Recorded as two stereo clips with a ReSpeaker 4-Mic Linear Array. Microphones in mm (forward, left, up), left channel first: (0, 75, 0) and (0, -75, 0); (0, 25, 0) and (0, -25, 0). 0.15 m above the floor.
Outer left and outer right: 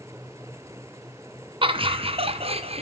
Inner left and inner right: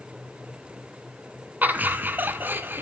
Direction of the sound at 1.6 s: 35° right (ahead or behind).